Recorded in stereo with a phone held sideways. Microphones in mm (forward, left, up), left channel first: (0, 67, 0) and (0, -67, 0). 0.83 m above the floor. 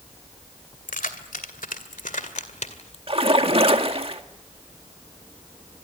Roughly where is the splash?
Right.